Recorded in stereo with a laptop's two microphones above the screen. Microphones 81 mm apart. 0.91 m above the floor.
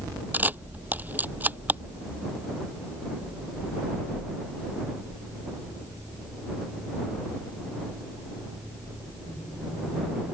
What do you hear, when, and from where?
0.3 s a camera shutter: 20° right (ahead or behind)